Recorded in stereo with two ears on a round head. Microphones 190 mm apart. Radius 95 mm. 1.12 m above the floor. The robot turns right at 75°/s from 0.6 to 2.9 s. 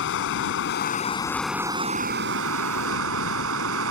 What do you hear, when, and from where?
0.0 s running water: 115° left; by 3.9 s 70° right